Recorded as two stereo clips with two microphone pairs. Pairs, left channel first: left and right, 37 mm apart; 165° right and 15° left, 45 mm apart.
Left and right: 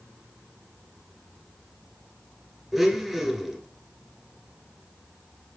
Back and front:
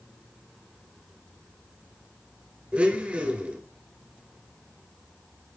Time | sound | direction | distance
2.7 | a blender | 10° right | 1.1 m